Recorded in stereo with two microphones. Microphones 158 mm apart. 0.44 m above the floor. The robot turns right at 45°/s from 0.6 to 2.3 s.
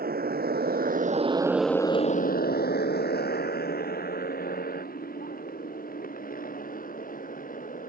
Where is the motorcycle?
80° right; by 7.9 s 60° left (ahead or behind).